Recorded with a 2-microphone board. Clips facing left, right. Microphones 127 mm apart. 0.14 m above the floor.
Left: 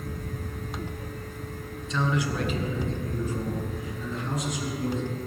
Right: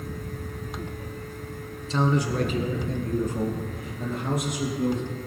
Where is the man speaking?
35° right (ahead or behind), 1.2 m; by 5.0 s 75° right (ahead or behind), 4 m.